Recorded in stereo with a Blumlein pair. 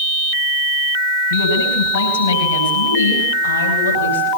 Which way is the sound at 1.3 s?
65° left.